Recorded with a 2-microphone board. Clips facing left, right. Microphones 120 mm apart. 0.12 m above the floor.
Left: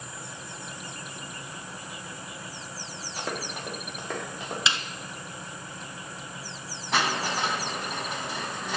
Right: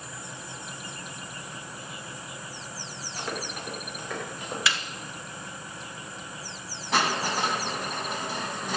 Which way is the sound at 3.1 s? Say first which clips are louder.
Left 1 dB; 75° left (ahead or behind).